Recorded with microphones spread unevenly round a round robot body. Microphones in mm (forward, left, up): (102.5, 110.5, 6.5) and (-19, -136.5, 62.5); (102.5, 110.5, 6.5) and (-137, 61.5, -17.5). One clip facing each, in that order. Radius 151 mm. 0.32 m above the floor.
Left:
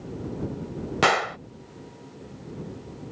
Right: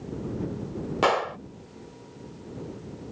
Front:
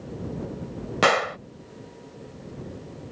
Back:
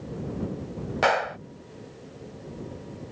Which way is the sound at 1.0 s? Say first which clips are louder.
Even, front 3 dB; 45° left.